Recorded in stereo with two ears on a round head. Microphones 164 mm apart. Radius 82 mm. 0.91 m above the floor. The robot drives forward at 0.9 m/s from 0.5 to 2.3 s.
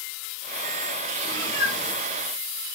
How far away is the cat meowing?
About 6 m.